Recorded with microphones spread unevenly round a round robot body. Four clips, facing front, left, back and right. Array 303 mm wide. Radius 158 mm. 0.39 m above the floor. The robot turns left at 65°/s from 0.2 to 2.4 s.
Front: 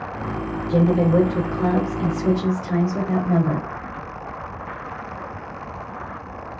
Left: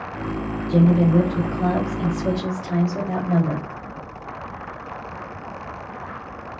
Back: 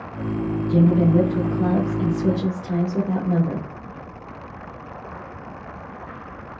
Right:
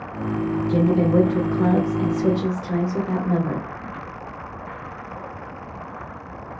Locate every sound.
0.7 s a woman speaking: 15° right, 1.2 m; by 3.7 s 125° right, 1.2 m